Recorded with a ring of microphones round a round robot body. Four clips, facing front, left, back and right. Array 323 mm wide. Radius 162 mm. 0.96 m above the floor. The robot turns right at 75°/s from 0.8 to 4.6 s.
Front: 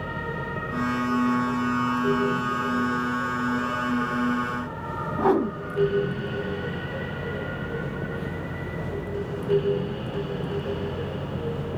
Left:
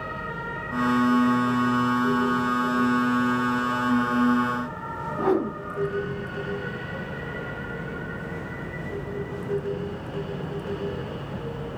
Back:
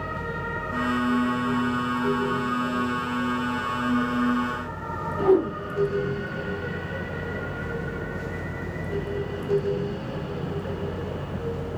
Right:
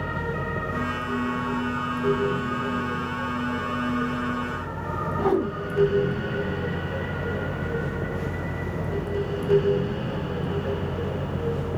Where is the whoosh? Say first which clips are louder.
Even, back 2 dB; 10° right, 1.0 m.